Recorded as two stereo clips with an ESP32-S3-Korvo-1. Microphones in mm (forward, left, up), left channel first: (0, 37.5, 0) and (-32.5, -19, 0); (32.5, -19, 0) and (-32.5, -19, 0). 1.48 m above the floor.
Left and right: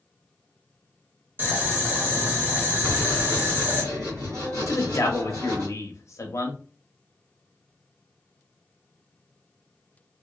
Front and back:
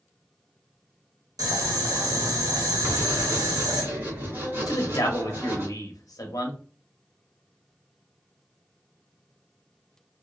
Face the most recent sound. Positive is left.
turn(degrees=20)